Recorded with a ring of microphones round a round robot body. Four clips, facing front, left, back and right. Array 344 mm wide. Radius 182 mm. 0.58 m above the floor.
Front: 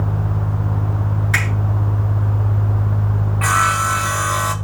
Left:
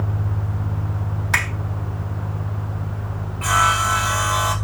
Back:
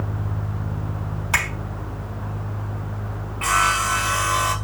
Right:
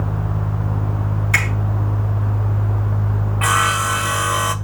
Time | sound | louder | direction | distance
1.3 | a finger snap | even, even | 145° left | 4 m
3.4 | sawing | even, front 3 dB | 70° right | 0.6 m